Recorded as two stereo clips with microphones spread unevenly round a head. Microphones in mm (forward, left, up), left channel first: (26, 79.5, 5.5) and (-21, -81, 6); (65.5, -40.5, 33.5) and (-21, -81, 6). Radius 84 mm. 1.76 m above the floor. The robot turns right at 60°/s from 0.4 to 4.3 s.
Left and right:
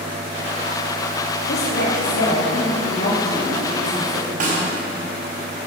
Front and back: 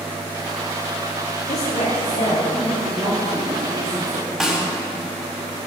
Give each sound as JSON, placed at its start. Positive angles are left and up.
{"t": 1.5, "sound": "a woman speaking", "azimuth_deg": 30, "distance_m": 4.0}
{"t": 4.4, "sound": "a snare drum", "azimuth_deg": -65, "distance_m": 5.0}